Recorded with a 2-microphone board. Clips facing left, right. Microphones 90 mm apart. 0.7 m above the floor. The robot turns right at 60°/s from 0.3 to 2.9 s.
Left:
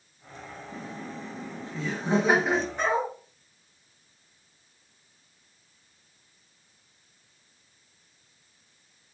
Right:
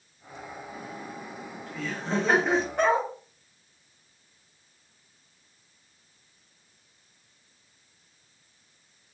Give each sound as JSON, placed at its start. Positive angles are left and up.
{"t": 0.7, "sound": "laughter", "side_deg": 25, "distance_m": 0.9}
{"t": 2.8, "sound": "a dog barking", "side_deg": -55, "distance_m": 1.5}